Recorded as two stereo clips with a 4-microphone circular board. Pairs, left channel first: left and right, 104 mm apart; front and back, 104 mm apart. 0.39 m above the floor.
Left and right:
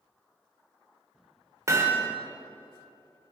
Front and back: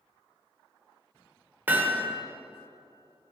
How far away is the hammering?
About 1.2 m.